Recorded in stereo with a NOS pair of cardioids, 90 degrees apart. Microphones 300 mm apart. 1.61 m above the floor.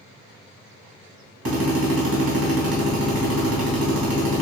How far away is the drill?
About 1.6 m.